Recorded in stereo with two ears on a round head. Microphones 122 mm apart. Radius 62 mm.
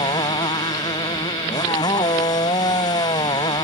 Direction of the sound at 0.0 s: 30° left (ahead or behind).